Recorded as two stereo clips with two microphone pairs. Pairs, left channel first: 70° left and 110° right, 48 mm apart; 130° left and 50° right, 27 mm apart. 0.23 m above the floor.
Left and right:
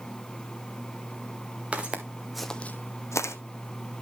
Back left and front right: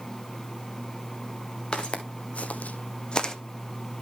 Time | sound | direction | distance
1.7 | footsteps | 175° right | 1.4 m